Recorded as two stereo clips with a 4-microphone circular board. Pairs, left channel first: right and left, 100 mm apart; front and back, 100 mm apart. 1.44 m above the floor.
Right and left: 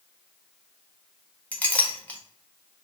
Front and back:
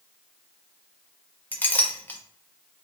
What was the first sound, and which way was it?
A clink, 40° right.